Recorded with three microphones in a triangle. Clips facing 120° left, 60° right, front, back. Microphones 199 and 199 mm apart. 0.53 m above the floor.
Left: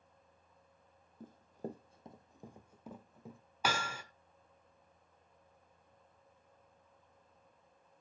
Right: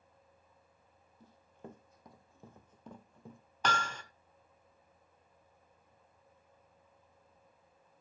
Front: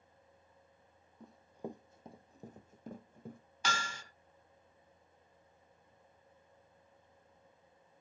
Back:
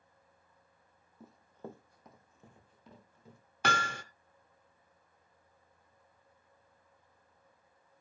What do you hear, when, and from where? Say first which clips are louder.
1.2 s running footsteps: left 8 dB, front 3 dB; 95° left, 0.9 m; by 3.4 s 30° left, 1.7 m
3.6 s hammering: right 1 dB, back 6 dB; 160° right, 0.9 m